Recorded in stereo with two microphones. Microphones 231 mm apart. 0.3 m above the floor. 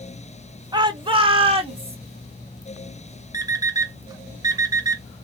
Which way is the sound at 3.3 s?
15° right (ahead or behind).